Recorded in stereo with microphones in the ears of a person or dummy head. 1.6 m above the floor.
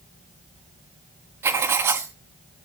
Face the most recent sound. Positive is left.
turn(degrees=-10)  # may be behind; listen again after turning